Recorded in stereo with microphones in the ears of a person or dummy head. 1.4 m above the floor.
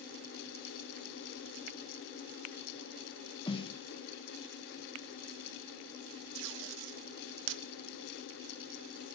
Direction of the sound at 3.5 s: 30° left (ahead or behind).